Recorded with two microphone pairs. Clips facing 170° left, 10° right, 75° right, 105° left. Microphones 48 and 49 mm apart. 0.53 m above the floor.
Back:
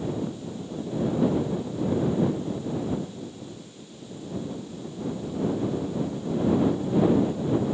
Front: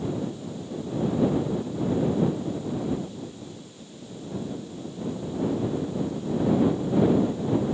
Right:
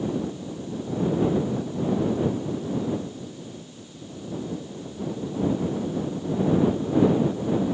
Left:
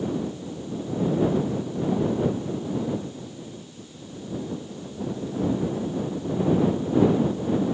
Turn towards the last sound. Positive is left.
No sound to turn to.